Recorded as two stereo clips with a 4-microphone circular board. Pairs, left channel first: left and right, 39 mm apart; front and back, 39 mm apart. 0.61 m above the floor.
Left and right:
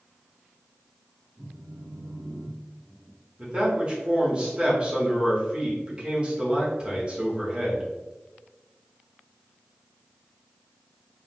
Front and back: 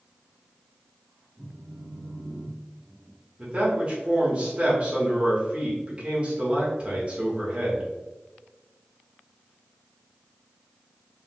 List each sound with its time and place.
1.4 s a phone buzzing: 130° right, 0.8 m
3.4 s a man speaking: 140° right, 1.2 m